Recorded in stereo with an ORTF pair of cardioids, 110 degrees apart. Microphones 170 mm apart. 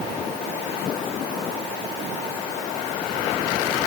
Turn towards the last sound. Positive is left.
No sound to turn to.